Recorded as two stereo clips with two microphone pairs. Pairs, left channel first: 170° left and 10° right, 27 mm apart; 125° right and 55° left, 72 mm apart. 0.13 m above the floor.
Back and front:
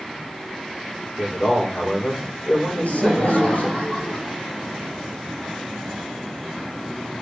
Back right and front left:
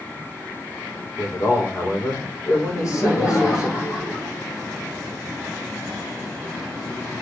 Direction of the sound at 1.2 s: 165° right.